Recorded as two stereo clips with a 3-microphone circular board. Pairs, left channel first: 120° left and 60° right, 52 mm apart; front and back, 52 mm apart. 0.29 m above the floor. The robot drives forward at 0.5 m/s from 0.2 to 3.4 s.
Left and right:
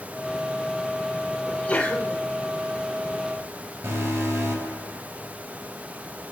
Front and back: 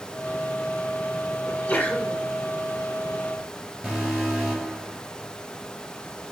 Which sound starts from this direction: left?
A sneeze, at 1.5 s.